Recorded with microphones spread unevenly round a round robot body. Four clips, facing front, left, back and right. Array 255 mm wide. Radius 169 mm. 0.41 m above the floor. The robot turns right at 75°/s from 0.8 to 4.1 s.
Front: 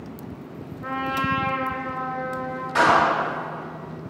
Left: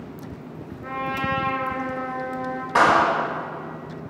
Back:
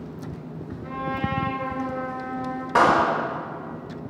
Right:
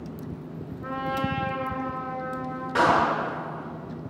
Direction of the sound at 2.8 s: 175° right.